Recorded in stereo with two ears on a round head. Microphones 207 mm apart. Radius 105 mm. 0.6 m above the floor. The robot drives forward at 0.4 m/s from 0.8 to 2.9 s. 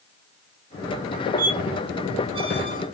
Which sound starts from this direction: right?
A squeak, at 1.4 s.